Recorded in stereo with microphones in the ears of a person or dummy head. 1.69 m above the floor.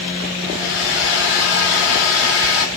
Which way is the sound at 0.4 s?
65° left (ahead or behind).